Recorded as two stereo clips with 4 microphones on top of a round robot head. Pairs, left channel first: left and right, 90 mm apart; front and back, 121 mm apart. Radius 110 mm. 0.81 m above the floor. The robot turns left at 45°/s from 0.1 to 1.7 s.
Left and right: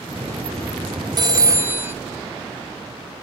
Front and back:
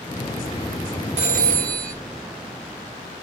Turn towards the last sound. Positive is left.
turn(degrees=-160)